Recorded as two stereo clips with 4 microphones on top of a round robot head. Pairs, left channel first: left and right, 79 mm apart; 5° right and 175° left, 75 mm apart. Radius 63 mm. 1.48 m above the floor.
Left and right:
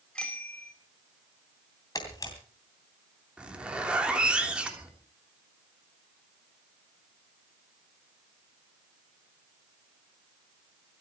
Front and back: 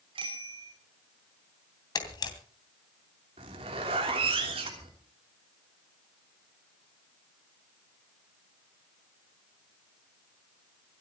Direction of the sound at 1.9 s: 25° left.